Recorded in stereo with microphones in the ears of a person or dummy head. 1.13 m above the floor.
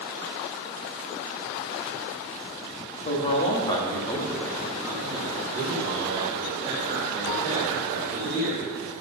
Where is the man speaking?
40° left (ahead or behind), 1.5 m; by 8.6 s 45° right (ahead or behind), 4 m.